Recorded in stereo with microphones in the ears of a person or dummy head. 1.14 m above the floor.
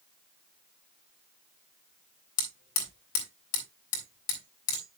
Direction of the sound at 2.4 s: 85° left.